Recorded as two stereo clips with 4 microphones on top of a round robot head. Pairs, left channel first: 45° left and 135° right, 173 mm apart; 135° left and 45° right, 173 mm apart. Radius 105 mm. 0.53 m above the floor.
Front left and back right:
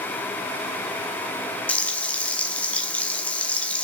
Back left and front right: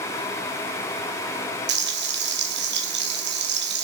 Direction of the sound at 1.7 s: 35° right.